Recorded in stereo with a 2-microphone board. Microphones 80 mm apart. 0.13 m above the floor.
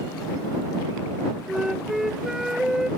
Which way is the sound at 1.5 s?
5° right (ahead or behind).